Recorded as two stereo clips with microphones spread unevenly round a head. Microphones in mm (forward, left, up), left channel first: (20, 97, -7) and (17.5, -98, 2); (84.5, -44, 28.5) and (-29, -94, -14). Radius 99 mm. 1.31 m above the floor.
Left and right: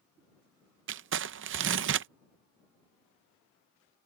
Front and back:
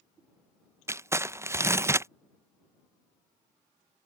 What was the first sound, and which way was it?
Crumpling, 80° right.